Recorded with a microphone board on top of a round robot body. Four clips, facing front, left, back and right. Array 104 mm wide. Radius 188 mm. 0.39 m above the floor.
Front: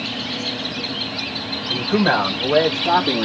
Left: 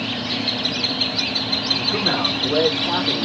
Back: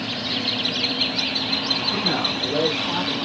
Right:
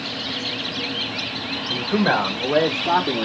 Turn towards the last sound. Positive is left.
turn(degrees=-15)